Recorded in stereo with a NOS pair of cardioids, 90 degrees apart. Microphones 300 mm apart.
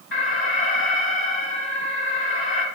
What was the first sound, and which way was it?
An alarm, 45° left.